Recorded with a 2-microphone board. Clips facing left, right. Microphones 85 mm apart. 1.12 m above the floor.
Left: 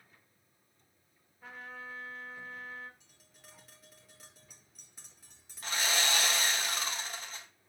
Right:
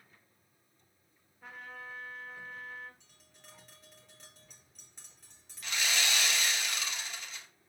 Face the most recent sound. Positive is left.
turn(degrees=40)  # may be behind; listen again after turning